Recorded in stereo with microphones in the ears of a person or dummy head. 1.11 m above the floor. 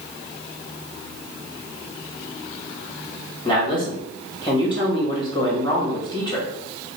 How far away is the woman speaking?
About 1.4 m.